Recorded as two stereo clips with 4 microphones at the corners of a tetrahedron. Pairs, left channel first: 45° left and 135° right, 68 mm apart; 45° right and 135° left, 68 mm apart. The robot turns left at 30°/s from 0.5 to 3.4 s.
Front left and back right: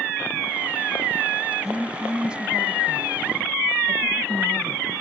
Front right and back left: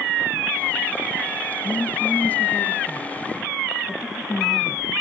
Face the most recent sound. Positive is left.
turn(degrees=-105)